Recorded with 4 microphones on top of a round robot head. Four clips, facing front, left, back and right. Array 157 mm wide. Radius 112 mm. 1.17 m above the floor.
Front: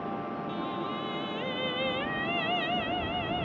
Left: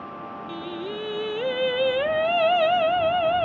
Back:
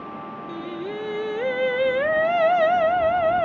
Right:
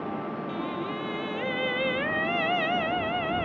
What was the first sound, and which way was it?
Singing, 145° left.